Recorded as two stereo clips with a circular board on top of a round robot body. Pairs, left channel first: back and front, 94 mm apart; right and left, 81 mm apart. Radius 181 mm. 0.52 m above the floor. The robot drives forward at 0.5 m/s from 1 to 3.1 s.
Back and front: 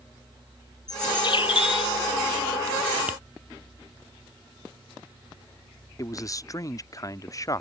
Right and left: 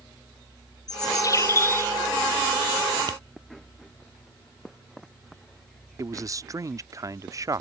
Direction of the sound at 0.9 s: 130° right.